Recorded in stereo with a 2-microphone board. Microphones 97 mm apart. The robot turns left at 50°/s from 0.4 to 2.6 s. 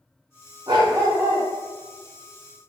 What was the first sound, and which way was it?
A dog barking, 125° right.